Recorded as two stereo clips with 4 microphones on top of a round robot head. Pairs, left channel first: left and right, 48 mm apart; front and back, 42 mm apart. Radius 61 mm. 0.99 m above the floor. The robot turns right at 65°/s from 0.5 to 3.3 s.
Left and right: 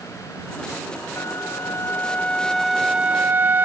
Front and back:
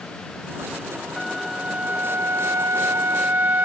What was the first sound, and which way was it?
A flute, 80° left.